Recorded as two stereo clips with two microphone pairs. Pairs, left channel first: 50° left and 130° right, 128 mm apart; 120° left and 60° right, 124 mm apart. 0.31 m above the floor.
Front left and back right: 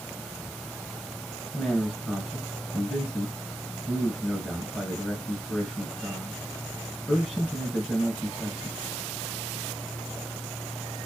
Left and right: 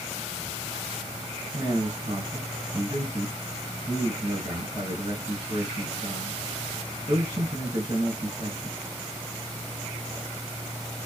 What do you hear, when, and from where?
1.5 s a man speaking: 45° right, 2.5 m